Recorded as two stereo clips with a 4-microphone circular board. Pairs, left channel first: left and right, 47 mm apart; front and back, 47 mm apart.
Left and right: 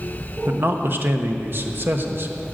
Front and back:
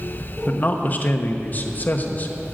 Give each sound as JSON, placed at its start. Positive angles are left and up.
{"t": 0.5, "sound": "a man speaking", "azimuth_deg": -50, "distance_m": 1.1}